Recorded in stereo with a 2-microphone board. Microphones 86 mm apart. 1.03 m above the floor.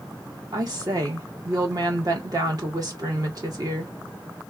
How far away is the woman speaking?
About 1.6 m.